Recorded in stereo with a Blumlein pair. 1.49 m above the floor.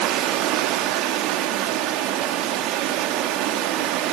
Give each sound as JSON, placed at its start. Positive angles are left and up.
{"t": 0.0, "sound": "running water", "azimuth_deg": -35, "distance_m": 2.5}